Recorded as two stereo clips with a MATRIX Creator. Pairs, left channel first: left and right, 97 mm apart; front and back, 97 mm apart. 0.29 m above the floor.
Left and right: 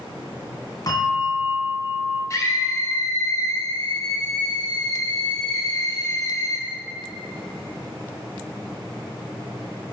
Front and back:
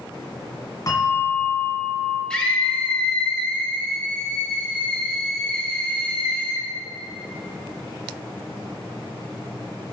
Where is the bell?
50° left, 2 m.